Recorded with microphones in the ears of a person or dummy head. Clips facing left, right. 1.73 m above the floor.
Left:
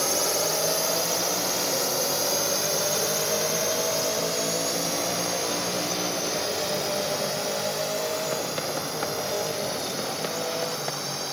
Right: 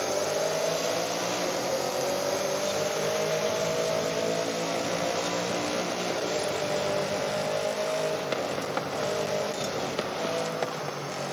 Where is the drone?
75° left (ahead or behind); by 11.3 s 85° left.